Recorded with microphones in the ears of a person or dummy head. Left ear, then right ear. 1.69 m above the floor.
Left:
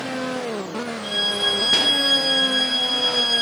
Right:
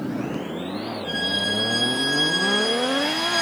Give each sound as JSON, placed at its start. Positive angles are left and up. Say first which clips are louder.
{"t": 1.0, "sound": "a violin", "louder": "left 3 dB", "side_deg": 55, "distance_m": 8.5}